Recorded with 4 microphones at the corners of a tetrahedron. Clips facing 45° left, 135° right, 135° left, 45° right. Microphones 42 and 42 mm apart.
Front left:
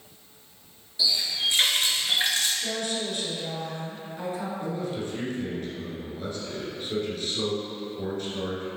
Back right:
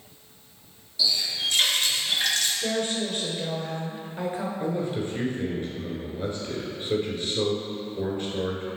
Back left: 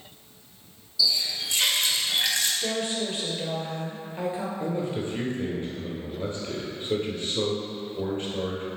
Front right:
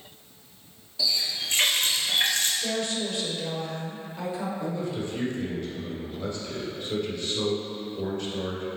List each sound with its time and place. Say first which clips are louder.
1.0 s a running tap: even, back left 1 dB; 20° right, 1.2 m
2.6 s a woman speaking: back right 3 dB, even; straight behind, 1.6 m
4.6 s a man speaking: back right 3 dB, back left 2 dB; 170° left, 1.9 m